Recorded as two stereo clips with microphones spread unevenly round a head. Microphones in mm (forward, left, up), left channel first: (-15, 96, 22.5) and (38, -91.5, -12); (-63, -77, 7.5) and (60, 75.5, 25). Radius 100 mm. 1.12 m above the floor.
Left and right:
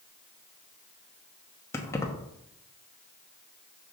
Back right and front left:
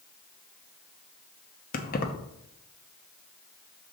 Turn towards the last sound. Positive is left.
turn(degrees=180)